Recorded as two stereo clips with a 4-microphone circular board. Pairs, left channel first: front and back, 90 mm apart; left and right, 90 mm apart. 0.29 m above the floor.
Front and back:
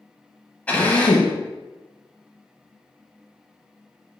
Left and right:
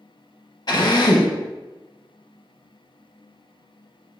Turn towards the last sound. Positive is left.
turn(degrees=70)